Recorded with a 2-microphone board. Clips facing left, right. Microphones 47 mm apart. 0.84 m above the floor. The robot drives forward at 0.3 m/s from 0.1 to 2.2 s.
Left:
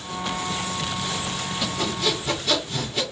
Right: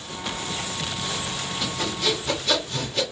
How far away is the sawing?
About 1.9 m.